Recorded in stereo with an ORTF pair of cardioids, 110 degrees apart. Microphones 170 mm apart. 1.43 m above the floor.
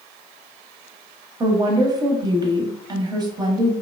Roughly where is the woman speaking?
Ahead right.